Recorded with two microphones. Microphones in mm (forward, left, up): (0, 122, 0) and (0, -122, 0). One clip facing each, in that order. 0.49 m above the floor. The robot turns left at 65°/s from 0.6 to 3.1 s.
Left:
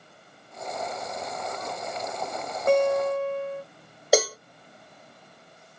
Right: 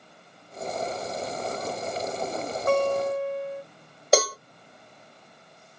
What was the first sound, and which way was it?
A guitar, 25° left (ahead or behind).